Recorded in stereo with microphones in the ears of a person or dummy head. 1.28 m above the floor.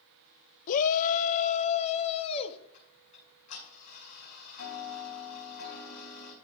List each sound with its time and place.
0.7 s a shout: 50° left (ahead or behind), 0.6 m; by 2.6 s 35° left (ahead or behind), 1.6 m
2.7 s ticking: 60° left (ahead or behind), 7.5 m